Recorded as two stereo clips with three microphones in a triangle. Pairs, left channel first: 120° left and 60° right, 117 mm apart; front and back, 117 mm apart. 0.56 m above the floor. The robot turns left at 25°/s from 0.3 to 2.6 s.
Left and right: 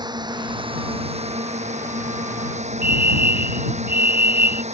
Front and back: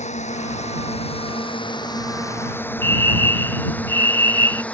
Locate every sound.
0.0 s a drone: 10° right; by 4.7 s 80° right
2.8 s a fire alarm: 145° left